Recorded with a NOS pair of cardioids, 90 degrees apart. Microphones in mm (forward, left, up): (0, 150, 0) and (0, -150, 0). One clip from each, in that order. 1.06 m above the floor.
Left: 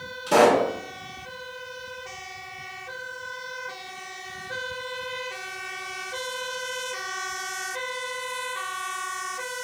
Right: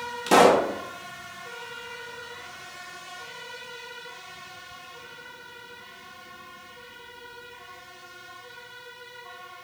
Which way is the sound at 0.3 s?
55° right.